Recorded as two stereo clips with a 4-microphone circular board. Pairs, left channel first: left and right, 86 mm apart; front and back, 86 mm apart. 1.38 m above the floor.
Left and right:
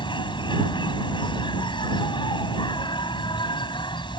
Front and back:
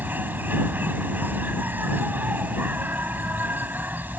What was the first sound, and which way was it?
An insect, 110° left.